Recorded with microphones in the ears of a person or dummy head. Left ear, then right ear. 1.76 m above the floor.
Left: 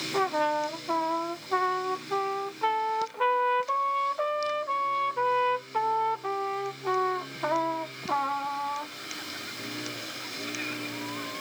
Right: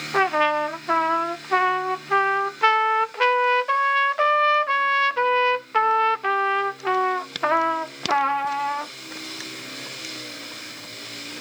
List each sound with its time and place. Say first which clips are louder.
0.1 s a trumpet: right 7 dB; 60° right (ahead or behind)